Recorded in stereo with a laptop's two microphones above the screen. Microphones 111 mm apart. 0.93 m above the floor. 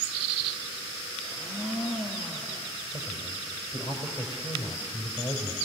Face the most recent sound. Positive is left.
turn(degrees=45)  # may be behind; listen again after turning